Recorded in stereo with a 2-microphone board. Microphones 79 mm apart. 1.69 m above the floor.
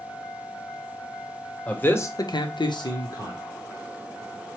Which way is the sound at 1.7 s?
15° left (ahead or behind).